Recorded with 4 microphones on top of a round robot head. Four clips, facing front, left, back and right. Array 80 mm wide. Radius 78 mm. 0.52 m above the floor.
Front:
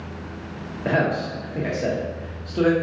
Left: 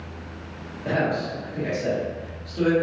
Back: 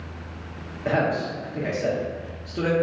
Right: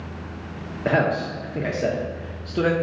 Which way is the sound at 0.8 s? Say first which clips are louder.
Right 3 dB, front 1 dB; 70° right.